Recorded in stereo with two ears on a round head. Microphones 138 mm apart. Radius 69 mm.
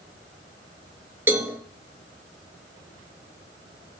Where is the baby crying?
I don't hear a baby crying.